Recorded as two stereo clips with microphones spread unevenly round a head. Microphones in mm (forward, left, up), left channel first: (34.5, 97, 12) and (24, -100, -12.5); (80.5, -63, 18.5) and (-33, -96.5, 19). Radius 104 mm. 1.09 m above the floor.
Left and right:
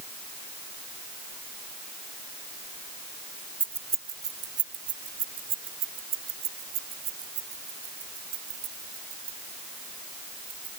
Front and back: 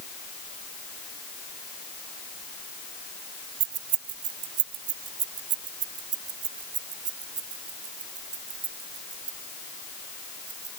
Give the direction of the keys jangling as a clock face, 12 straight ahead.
6 o'clock.